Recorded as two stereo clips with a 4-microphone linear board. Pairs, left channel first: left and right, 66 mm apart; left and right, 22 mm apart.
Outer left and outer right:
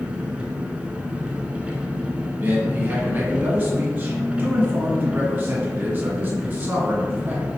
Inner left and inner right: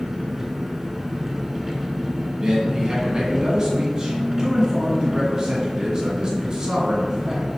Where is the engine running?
15° right (ahead or behind), 0.7 m.